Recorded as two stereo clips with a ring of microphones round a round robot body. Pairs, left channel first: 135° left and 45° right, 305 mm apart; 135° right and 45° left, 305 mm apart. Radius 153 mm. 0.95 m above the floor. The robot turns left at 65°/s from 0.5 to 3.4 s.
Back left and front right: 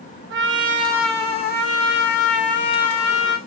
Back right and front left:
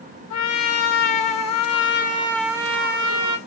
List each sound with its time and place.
0.3 s a trumpet: 100° right, 0.8 m; by 3.4 s 75° left, 0.8 m